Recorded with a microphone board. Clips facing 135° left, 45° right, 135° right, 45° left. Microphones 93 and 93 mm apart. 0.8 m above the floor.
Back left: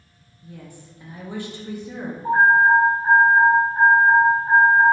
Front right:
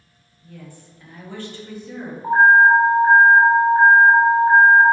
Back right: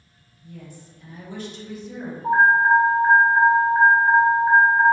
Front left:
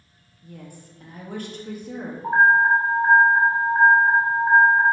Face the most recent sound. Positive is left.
turn(degrees=-25)